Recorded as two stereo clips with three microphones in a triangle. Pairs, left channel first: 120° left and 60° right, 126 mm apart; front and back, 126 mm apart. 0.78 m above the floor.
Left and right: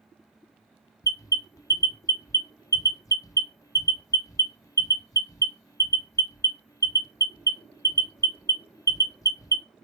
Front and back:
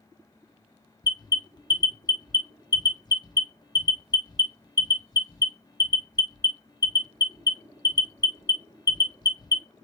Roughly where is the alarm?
Ahead left.